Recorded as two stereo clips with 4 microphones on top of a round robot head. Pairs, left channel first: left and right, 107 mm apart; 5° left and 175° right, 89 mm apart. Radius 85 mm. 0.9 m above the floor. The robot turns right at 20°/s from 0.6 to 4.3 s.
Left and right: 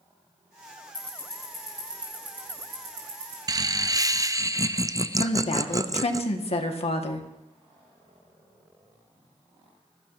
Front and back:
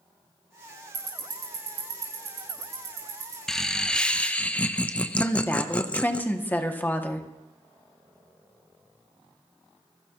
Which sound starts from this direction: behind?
Ticking, at 0.9 s.